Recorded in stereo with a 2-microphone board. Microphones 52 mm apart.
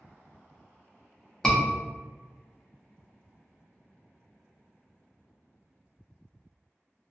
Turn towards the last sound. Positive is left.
turn(degrees=15)  # may be behind; listen again after turning